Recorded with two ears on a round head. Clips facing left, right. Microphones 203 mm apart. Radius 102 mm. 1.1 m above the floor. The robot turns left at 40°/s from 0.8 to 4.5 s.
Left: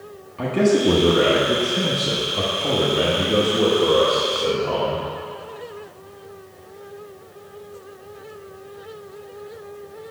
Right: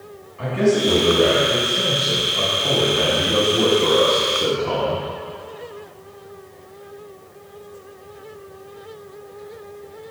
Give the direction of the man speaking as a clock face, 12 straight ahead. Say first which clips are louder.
Left 1 dB; 8 o'clock.